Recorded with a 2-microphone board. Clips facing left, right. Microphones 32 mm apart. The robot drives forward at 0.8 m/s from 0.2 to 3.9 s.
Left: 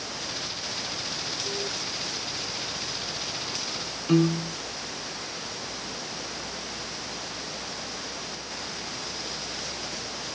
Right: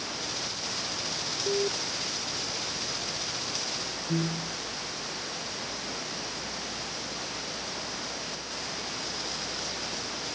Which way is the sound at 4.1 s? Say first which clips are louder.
Left 10 dB; 65° left (ahead or behind).